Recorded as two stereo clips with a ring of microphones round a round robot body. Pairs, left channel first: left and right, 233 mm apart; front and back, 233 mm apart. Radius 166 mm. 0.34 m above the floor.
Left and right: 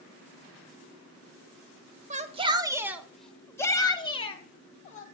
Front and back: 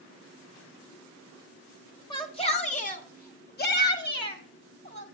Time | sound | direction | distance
2.1 | a shout | 60° right | 0.9 m